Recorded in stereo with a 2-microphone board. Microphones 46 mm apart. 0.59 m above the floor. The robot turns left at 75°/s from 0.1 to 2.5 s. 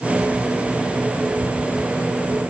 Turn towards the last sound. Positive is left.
No sound to turn to.